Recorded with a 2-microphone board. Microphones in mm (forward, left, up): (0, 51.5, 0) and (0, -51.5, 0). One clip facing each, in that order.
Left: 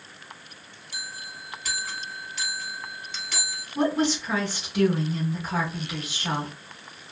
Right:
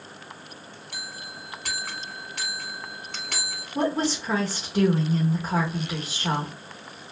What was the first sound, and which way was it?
A bell, 55° right (ahead or behind).